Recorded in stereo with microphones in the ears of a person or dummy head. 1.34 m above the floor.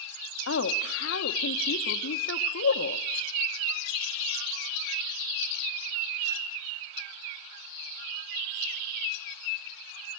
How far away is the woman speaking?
About 1.5 m.